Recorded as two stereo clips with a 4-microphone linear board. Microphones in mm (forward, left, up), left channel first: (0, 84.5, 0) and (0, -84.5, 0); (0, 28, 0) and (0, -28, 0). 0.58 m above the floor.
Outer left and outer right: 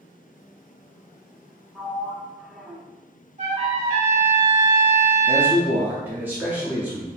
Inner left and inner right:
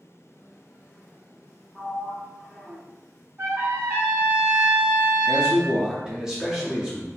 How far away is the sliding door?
About 0.6 m.